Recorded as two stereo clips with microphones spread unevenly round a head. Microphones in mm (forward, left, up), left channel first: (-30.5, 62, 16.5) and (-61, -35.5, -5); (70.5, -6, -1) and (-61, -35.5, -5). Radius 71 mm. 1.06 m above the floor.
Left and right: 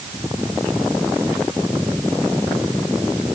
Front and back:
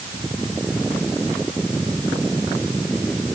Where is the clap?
I don't hear a clap.